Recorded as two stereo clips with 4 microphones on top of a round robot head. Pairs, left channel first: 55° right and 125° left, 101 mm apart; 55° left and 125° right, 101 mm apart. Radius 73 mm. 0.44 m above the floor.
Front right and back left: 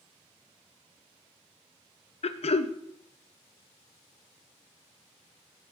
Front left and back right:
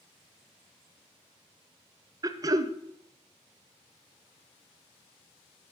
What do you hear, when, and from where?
2.2 s throat clearing: 70° right, 0.8 m